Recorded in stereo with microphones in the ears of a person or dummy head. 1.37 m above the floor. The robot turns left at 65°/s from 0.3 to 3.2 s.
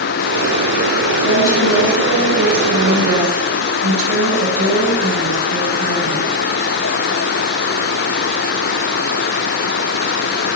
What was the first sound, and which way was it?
A woman speaking, 75° left.